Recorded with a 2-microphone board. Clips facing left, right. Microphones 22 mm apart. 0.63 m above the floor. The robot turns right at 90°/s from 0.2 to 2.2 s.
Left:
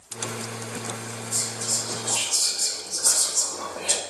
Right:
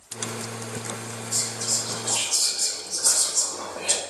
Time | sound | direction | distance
1.3 | whispering | 100° right | 0.8 m